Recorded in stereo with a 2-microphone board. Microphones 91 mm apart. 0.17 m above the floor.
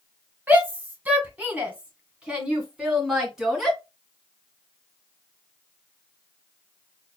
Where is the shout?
20° right (ahead or behind), 1.6 m; by 3.8 s 5° right (ahead or behind), 2 m.